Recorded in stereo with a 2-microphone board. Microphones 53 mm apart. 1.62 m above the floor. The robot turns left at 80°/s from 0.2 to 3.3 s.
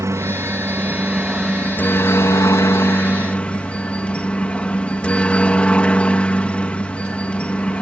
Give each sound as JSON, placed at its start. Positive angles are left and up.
{"t": 0.0, "sound": "a helicopter", "azimuth_deg": -90}